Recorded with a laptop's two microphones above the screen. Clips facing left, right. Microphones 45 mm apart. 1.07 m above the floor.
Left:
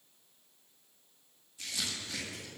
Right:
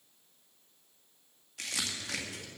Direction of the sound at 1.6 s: 70° right (ahead or behind).